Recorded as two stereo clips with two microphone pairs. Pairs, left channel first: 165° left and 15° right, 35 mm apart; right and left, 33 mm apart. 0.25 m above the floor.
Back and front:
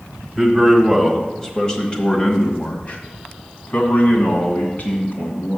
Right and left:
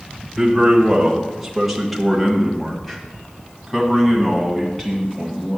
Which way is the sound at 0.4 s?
35° left.